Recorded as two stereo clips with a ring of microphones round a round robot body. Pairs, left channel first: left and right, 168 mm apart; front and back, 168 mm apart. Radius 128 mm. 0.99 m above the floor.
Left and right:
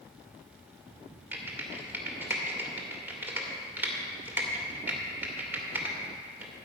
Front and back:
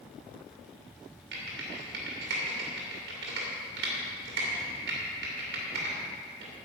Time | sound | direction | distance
1.3 | typing on a keyboard | 170° right | 2 m